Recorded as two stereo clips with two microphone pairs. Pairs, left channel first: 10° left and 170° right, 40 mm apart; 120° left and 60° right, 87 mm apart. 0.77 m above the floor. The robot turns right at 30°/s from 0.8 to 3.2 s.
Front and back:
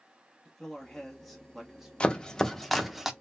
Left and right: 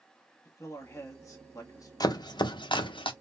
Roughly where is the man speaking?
Left.